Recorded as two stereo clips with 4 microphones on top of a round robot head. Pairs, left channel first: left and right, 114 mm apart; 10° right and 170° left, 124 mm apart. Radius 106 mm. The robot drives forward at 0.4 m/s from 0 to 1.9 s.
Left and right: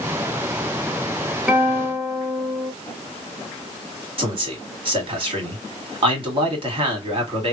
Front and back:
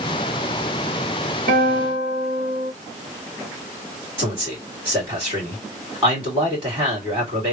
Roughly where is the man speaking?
Behind right.